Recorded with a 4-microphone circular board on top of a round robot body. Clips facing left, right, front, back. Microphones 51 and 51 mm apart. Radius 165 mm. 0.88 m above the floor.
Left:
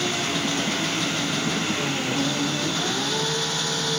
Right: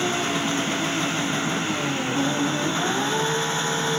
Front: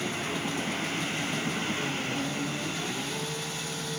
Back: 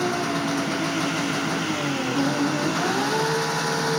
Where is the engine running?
155° right.